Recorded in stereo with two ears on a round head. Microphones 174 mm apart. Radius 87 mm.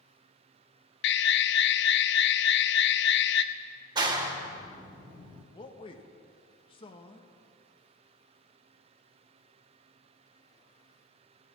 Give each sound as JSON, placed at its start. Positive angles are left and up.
{"t": 1.0, "sound": "an alarm", "side_deg": 60, "distance_m": 0.8}
{"t": 4.0, "sound": "a clap", "side_deg": -20, "distance_m": 1.6}
{"t": 5.5, "sound": "a man speaking", "side_deg": 30, "distance_m": 1.3}